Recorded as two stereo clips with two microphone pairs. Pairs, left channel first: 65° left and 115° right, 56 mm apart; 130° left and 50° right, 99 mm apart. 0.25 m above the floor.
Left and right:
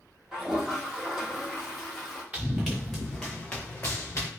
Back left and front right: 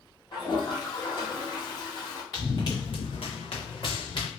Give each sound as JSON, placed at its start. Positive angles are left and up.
{"t": 0.3, "sound": "a toilet flushing", "azimuth_deg": 165, "distance_m": 1.6}
{"t": 2.3, "sound": "running footsteps", "azimuth_deg": 175, "distance_m": 1.3}